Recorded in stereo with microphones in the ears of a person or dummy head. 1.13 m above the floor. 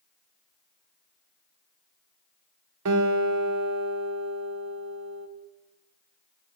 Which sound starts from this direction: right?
A guitar, at 2.9 s.